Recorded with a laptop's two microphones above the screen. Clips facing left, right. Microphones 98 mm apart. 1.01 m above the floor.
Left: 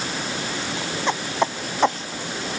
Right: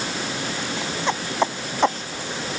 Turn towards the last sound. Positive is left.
No sound to turn to.